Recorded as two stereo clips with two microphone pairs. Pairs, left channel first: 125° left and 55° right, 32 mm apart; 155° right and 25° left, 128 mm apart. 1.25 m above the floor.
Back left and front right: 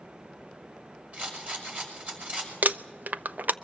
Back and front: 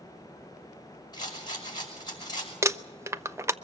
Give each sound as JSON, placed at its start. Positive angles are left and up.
{"t": 1.1, "sound": "a rattle", "azimuth_deg": -100, "distance_m": 6.0}
{"t": 2.6, "sound": "crumpling", "azimuth_deg": -45, "distance_m": 0.6}